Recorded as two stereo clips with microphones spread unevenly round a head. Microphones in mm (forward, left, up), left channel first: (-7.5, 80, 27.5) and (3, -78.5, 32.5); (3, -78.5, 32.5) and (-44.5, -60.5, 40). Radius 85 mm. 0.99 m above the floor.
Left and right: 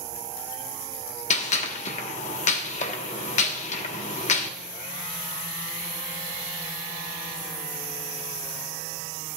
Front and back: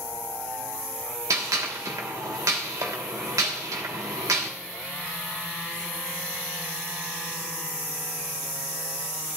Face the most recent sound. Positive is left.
turn(degrees=140)